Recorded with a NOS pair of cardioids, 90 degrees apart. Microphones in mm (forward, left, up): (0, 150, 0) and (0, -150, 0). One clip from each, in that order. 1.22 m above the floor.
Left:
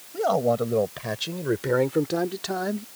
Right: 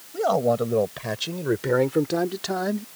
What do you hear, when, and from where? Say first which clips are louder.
0.1 s a man speaking: right 1 dB; 5° right; by 2.9 s 10° right